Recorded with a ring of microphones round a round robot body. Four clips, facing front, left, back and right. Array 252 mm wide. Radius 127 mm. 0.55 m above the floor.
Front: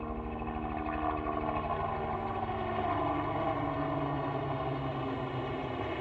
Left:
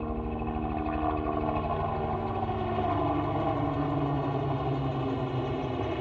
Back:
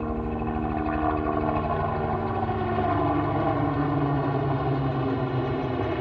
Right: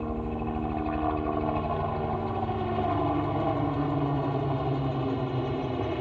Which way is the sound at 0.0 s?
170° right.